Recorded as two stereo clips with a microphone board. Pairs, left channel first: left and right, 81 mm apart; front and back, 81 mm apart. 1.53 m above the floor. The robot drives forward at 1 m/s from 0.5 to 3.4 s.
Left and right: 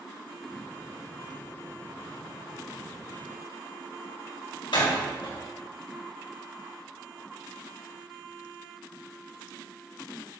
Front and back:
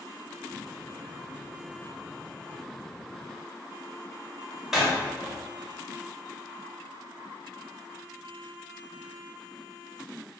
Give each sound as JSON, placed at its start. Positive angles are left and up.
{"t": 4.7, "sound": "a door slam", "azimuth_deg": 100, "distance_m": 3.5}